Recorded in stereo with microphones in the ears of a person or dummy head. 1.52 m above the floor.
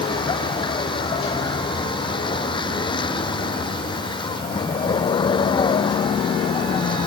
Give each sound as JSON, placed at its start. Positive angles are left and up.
{"t": 0.0, "sound": "a vehicle", "side_deg": 25}